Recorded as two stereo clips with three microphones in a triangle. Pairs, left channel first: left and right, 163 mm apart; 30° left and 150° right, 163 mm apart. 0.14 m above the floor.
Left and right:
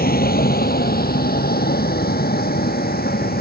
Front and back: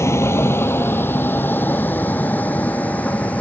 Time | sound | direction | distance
0.0 | a vehicle | 100° left | ?